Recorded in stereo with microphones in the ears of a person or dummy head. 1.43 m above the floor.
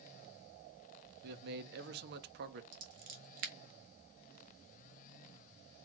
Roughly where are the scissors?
Right.